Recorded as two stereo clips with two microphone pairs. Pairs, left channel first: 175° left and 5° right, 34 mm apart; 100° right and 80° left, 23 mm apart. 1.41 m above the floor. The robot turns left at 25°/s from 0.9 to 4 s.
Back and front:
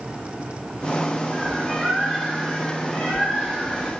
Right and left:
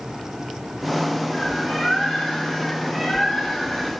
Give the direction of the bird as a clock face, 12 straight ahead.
3 o'clock.